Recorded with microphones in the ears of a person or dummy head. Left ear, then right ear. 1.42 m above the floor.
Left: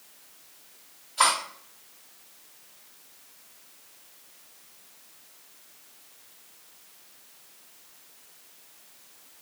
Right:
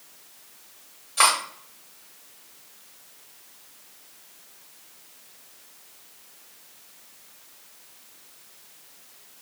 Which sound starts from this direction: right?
Cutlery clinking, at 1.2 s.